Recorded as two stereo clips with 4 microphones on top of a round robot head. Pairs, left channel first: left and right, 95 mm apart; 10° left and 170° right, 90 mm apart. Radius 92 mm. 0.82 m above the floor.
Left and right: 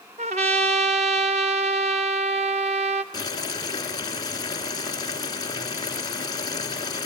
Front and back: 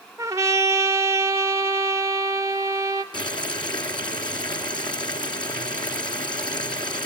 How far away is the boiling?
About 3 m.